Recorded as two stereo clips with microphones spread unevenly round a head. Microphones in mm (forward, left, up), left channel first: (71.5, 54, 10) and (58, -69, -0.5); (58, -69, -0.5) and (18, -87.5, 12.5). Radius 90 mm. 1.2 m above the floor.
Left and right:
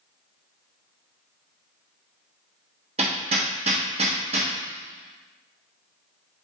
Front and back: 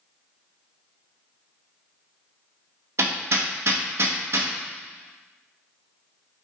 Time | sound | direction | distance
3.0 | hammering | 155° right | 0.9 m